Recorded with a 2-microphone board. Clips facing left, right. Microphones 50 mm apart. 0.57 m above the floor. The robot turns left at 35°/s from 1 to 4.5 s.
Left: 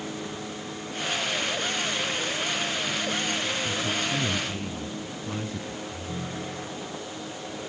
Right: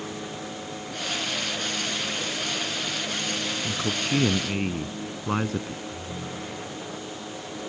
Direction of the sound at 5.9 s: 30° left (ahead or behind).